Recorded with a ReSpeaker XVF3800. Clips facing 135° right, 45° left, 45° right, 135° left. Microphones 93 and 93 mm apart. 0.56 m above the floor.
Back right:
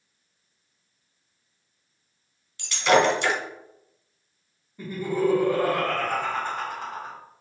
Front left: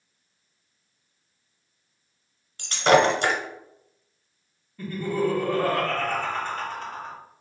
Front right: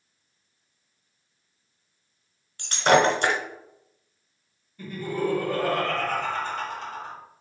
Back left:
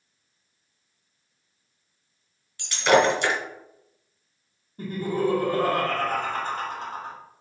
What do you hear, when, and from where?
2.6 s breaking glass: straight ahead, 1.0 m
4.8 s laughter: 160° left, 1.3 m